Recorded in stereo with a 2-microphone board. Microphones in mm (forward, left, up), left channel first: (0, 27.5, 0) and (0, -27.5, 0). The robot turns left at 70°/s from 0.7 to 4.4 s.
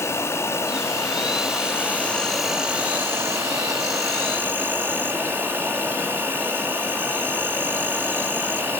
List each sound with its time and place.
0.0 s an insect: 120° left, 1.8 m; by 8.8 s 140° right, 1.8 m